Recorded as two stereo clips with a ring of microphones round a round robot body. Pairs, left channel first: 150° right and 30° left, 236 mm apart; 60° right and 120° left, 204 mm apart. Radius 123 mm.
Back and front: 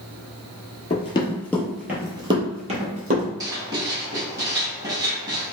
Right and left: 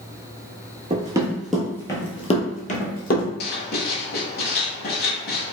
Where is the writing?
40° right, 0.7 m.